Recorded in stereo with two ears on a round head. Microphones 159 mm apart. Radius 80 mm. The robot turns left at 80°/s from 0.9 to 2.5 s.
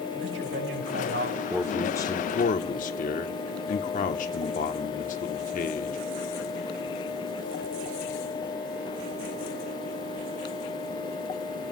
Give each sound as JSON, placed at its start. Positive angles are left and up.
{"t": 0.2, "sound": "a man speaking", "azimuth_deg": -85, "distance_m": 6.5}
{"t": 1.5, "sound": "a man speaking", "azimuth_deg": -165, "distance_m": 1.1}